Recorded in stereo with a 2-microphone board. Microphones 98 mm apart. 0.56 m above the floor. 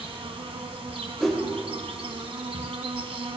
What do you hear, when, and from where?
0.0 s an insect: 75° right (ahead or behind), 1.2 m
1.2 s a whoosh: 5° left (ahead or behind), 1.7 m